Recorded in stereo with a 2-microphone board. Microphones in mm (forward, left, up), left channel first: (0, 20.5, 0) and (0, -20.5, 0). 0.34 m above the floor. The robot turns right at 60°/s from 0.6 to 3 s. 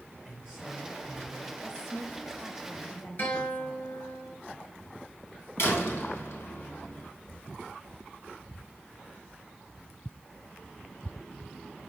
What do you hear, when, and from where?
0.2 s a man speaking: 25° right, 4.5 m; by 1.5 s 30° left, 4.5 m
1.6 s a woman speaking: 35° right, 1.7 m; by 3.8 s 50° left, 1.7 m
3.2 s a guitar: 60° left (ahead or behind), 3.5 m
5.6 s a door slam: 70° left (ahead or behind), 2.5 m